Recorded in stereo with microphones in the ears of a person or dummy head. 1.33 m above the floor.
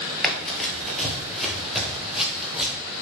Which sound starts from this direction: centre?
Running footsteps, at 0.2 s.